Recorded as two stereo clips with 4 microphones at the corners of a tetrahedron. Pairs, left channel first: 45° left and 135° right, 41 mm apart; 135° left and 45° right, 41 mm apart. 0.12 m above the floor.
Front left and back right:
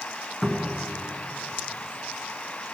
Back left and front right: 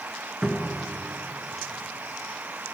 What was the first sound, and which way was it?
A cupboard door, 10° right.